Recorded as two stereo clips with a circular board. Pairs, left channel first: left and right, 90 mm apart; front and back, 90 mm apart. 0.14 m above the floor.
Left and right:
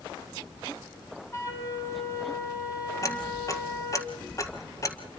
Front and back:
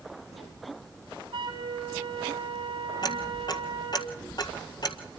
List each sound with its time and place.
1.3 s a flute: 145° left, 4 m
3.0 s ticking: 40° left, 1.6 m